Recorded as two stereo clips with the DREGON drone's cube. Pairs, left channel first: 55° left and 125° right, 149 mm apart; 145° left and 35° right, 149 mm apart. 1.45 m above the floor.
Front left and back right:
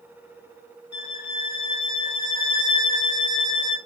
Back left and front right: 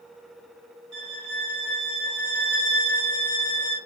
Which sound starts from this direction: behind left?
A violin, at 0.9 s.